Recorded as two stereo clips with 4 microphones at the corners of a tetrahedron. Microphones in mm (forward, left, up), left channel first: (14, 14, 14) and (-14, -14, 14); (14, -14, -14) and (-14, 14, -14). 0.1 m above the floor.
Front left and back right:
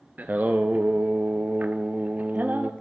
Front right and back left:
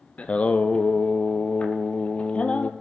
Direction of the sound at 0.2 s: 95° right.